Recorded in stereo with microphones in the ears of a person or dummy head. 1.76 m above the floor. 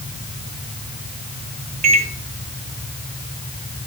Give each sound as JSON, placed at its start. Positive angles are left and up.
{"t": 1.8, "sound": "a microwave", "side_deg": -35, "distance_m": 2.0}